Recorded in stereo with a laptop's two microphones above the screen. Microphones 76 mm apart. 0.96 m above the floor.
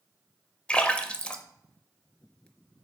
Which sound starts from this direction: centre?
A splash, at 0.7 s.